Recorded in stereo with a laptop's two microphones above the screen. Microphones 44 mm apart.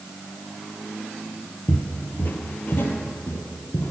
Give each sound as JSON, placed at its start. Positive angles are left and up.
{"t": 1.7, "sound": "footsteps", "side_deg": 40, "distance_m": 1.4}